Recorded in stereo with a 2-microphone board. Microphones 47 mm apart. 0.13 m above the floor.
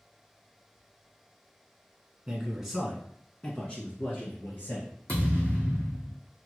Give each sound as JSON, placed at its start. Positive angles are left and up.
{"t": 2.3, "sound": "a man speaking", "side_deg": -15, "distance_m": 1.3}
{"t": 5.1, "sound": "a thud", "side_deg": 30, "distance_m": 2.5}